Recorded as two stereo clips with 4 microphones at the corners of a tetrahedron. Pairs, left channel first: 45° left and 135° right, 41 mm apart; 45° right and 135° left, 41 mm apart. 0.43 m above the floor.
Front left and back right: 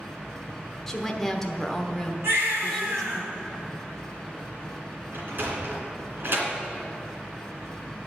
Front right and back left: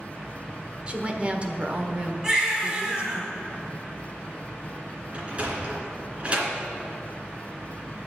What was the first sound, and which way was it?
A woman speaking, 115° left.